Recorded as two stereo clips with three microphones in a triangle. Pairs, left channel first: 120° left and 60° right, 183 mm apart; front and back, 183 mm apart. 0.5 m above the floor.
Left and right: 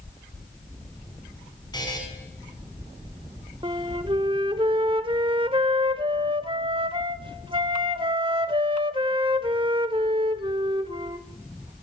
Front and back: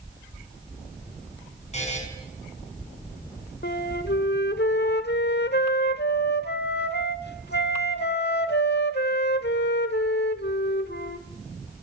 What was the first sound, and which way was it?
A buzzer, 50° left.